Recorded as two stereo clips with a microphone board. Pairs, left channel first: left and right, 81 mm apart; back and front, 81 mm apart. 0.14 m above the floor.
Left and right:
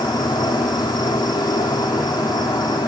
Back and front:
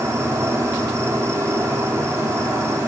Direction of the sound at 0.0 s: 55° left.